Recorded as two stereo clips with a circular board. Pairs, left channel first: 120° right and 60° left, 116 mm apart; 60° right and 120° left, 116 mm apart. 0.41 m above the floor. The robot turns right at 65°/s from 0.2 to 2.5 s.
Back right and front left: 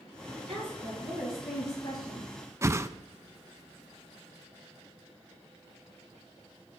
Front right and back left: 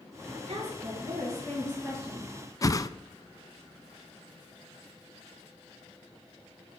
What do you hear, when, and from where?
0.3 s a woman speaking: 85° left, 8.5 m; by 2.3 s 150° right, 8.5 m
2.6 s a whoosh: 5° right, 0.5 m